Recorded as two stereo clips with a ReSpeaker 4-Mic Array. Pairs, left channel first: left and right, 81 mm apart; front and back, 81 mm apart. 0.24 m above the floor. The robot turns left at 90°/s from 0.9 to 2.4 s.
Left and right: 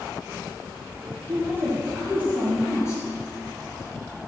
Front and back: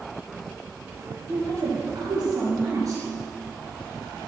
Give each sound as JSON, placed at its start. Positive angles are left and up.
{"t": 1.3, "sound": "a woman speaking", "azimuth_deg": -120, "distance_m": 4.5}